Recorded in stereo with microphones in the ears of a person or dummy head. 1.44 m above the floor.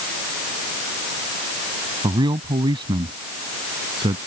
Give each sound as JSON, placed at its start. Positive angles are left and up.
{"t": 2.0, "sound": "a man speaking", "side_deg": -25}